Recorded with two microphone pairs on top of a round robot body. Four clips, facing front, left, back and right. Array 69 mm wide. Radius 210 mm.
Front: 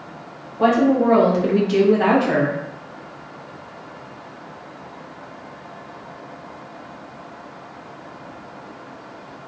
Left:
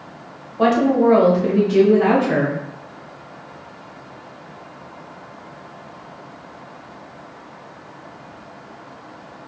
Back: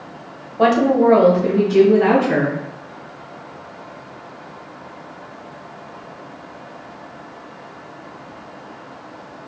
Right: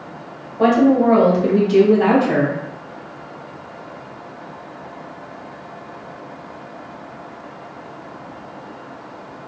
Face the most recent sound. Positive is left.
turn(degrees=-10)